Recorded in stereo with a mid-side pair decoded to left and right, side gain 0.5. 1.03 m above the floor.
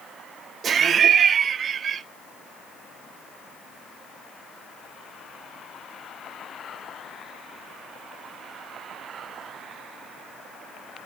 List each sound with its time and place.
0.6 s laughter: 45° right, 0.8 m